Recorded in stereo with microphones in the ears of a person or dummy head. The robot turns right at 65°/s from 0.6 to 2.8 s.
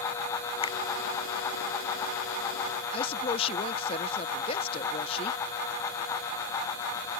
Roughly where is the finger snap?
Left.